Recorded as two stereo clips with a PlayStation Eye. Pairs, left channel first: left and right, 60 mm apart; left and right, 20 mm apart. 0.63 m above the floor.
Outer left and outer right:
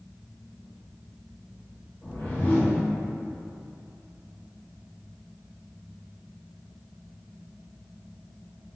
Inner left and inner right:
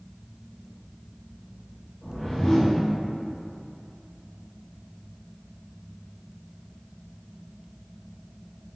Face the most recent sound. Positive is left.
turn(degrees=30)  # may be behind; listen again after turning